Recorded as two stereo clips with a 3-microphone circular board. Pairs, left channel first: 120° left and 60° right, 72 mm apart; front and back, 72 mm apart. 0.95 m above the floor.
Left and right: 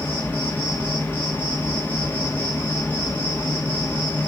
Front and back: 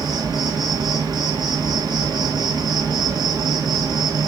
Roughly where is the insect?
Behind.